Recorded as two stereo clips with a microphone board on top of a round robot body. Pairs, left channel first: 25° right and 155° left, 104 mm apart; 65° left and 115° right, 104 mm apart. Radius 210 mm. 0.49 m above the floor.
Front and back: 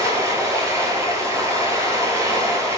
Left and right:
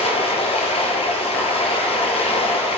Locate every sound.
0.0 s running water: 95° left, 1.7 m